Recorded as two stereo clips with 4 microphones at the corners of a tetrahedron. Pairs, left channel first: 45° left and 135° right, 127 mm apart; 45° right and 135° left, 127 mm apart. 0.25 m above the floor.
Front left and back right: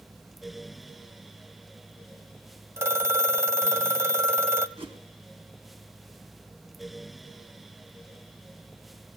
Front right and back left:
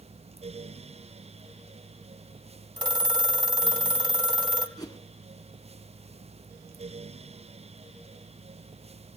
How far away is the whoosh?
About 2.0 m.